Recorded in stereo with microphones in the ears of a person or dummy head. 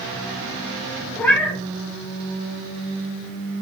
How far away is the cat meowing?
About 0.7 m.